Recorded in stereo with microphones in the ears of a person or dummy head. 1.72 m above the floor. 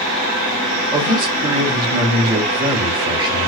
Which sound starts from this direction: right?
A man speaking, at 0.9 s.